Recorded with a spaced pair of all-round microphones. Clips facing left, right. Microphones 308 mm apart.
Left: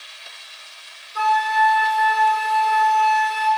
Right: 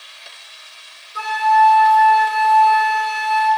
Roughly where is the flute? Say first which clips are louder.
Right 4 dB; centre.